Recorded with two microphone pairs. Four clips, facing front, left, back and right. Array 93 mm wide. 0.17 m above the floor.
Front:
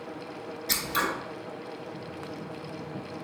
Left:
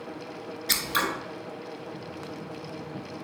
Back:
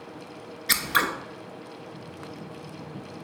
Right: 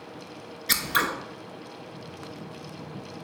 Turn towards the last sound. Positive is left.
turn(degrees=-165)